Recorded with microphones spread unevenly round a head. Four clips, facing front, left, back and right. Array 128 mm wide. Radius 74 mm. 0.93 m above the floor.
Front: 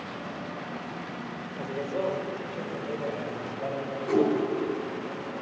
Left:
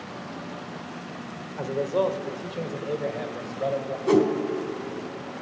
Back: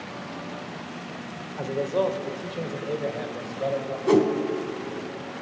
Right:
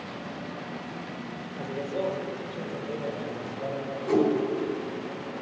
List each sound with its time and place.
1.6 s a man speaking: 85° left, 3 m; by 4.0 s 90° left, 4.5 m
4.1 s a whoosh: 115° left, 4.5 m